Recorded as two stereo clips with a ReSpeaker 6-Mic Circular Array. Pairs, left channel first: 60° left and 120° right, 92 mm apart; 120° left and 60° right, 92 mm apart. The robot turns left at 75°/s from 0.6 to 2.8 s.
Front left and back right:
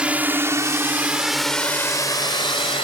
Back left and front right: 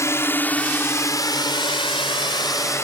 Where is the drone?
165° left; by 2.8 s 60° left.